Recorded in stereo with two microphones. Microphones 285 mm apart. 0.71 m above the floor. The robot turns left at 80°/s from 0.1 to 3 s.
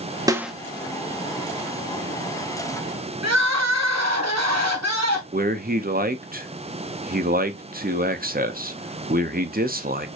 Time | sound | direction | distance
0.3 | a snare drum | 15° right (ahead or behind) | 0.7 m
3.2 | crying | 65° right (ahead or behind) | 1.2 m
5.3 | a man speaking | 30° right (ahead or behind) | 0.7 m